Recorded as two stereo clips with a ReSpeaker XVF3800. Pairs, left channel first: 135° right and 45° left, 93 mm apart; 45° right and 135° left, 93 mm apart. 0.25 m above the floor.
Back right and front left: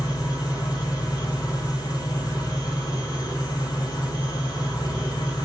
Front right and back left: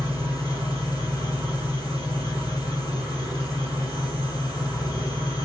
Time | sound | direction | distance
0.0 | an engine running | 95° right | 3.5 m